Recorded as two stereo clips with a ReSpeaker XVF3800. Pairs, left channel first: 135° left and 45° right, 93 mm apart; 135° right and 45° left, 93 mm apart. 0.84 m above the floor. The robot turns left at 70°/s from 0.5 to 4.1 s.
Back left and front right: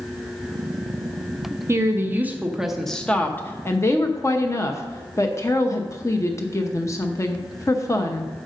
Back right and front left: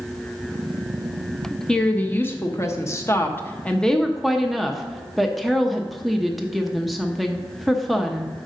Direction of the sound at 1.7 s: 55° right.